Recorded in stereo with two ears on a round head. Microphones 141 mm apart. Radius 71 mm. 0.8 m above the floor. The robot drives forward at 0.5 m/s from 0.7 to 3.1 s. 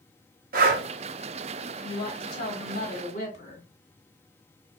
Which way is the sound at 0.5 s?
60° right (ahead or behind).